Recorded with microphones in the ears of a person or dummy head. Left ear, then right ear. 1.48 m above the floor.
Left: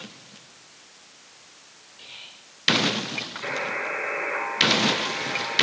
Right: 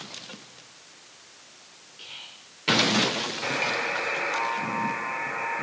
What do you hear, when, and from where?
2.0 s whispering: 15° right (ahead or behind), 2 m
3.4 s a buzzer: 50° right (ahead or behind), 6 m